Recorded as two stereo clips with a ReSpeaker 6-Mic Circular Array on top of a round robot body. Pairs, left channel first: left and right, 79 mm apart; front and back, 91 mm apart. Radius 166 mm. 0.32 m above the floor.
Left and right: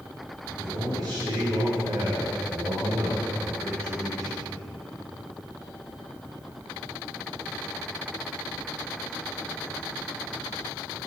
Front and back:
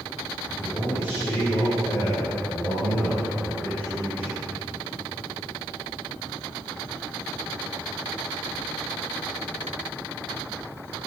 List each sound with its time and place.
0.5 s a man speaking: 45° right, 5.5 m